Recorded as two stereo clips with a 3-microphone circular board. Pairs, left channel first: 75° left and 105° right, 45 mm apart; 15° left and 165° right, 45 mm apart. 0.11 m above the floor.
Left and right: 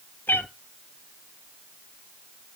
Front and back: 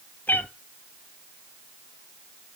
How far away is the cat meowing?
About 0.6 m.